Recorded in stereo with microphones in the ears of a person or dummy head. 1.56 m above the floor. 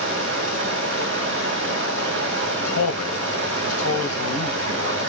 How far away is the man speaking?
About 0.9 m.